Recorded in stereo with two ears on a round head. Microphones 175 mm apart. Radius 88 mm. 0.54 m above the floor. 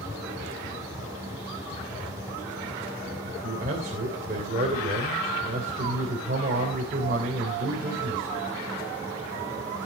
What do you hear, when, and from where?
3.2 s a man speaking: 45° right (ahead or behind), 2.5 m